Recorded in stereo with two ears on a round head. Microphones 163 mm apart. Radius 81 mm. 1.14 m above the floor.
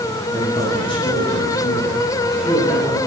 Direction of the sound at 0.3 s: 30° left (ahead or behind).